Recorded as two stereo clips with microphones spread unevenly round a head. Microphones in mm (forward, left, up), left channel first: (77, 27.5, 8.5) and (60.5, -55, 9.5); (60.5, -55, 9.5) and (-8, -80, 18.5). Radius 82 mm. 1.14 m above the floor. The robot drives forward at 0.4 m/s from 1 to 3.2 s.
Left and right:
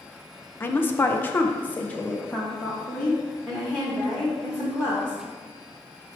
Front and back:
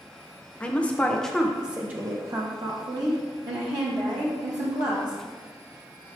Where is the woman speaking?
55° left, 0.5 m; by 5.2 s 165° left, 0.9 m.